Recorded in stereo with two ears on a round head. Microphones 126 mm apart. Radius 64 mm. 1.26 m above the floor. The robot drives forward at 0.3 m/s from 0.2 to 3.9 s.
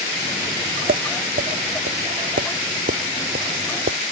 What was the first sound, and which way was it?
Tapping, 70° right (ahead or behind).